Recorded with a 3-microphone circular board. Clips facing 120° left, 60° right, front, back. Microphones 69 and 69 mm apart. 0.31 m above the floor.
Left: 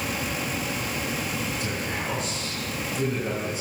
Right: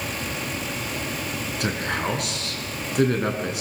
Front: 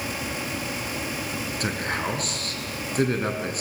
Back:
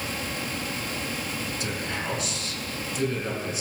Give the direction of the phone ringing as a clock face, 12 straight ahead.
I don't hear a phone ringing.